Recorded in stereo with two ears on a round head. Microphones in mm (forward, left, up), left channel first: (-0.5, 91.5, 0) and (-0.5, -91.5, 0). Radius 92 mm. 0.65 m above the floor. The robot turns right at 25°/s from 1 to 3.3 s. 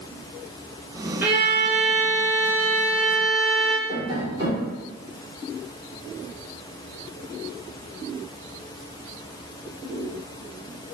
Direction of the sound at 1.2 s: 10° right (ahead or behind).